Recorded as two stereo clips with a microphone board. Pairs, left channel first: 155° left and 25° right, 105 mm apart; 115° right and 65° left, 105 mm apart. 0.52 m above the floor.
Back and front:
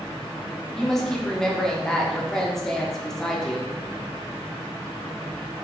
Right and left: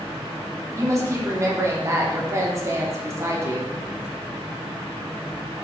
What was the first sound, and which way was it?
A woman speaking, 75° left.